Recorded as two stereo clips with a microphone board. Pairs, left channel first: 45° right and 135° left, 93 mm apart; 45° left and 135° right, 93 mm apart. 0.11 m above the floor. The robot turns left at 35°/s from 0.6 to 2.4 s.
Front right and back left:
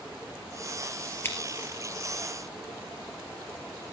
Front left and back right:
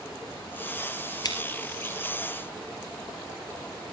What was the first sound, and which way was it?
Scissors, 15° left.